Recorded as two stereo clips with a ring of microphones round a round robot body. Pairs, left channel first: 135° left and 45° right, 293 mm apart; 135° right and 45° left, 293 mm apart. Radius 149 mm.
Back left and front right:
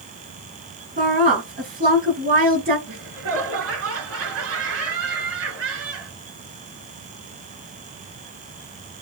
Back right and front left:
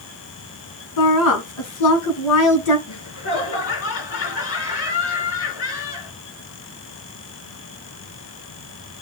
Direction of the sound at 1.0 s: 105° right.